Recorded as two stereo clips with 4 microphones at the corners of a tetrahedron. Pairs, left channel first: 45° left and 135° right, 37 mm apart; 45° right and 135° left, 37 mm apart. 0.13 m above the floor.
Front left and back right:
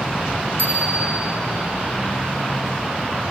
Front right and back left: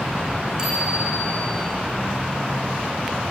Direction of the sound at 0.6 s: 155° right.